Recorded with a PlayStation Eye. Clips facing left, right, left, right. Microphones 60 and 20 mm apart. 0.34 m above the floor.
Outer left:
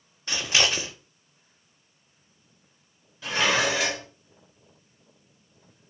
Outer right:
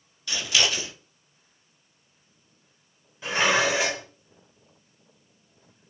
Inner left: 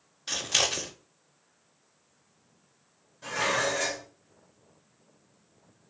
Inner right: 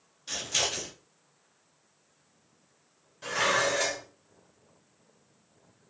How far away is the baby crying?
No baby crying in this recording.